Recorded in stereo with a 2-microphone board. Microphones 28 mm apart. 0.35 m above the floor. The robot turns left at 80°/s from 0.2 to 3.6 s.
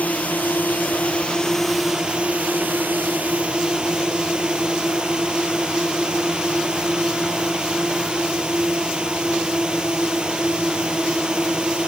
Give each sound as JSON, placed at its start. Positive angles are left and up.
{"t": 0.0, "sound": "a drone", "azimuth_deg": 120}